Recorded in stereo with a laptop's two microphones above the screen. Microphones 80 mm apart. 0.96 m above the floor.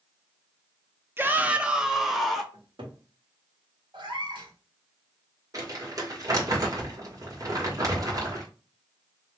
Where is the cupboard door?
75° right (ahead or behind), 1.7 m.